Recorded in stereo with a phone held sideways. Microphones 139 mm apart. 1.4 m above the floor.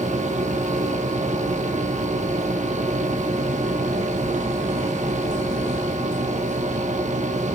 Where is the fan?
55° right (ahead or behind), 2 m.